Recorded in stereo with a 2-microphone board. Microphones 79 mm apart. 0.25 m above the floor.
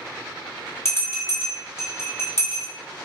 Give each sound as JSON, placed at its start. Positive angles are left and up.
{"t": 0.8, "sound": "a bell", "side_deg": 35, "distance_m": 1.3}